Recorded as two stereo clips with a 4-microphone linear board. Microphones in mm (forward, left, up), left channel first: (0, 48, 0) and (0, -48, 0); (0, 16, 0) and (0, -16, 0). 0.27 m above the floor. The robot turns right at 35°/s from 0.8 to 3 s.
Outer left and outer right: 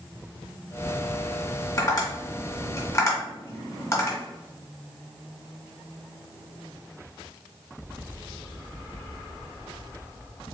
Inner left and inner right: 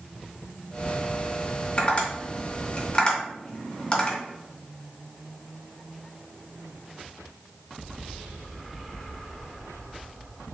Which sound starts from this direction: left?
Tapping, at 1.8 s.